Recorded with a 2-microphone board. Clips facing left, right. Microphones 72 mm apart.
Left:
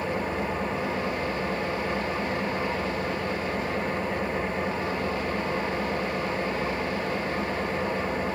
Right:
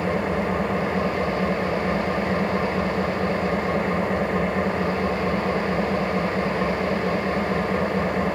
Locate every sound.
0.0 s an engine running: 70° right (ahead or behind), 1.9 m